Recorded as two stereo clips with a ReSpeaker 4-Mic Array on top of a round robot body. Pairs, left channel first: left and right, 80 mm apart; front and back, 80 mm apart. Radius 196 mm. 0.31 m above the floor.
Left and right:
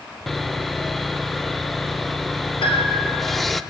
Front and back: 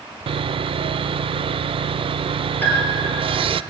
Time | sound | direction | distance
0.3 | sawing | straight behind | 0.5 m
2.6 | a piano | 70° left | 5 m